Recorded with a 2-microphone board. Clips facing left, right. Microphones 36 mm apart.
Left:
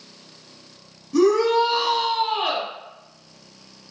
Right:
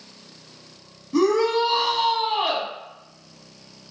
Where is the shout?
30° right (ahead or behind), 1.3 m.